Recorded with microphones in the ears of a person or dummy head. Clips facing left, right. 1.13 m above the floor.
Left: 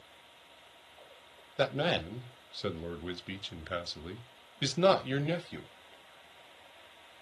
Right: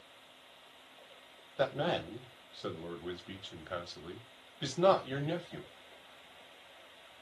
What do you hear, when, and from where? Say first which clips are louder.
1.6 s a man speaking: left 2 dB; 30° left (ahead or behind), 0.6 m